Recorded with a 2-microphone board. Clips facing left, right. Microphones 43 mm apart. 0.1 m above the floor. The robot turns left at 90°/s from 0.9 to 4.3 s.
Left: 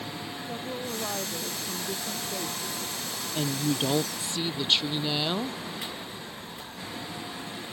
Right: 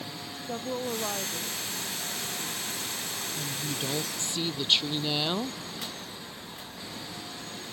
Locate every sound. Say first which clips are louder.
0.5 s a woman speaking: right 4 dB; 160° right; by 2.8 s 25° left
3.4 s a woman speaking: left 10 dB; 85° left; by 5.6 s straight ahead